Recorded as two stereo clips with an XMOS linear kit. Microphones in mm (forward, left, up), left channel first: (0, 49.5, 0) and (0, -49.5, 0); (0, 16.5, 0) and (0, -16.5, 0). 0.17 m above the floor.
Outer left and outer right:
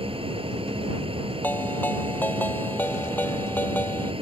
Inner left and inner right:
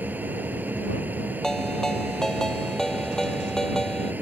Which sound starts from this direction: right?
An aircraft, at 0.0 s.